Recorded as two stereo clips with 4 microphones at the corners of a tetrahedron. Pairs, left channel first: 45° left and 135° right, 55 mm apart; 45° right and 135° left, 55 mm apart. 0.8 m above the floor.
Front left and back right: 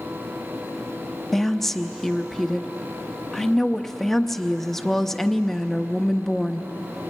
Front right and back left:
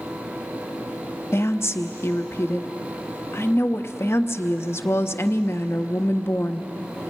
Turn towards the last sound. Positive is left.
turn(degrees=-40)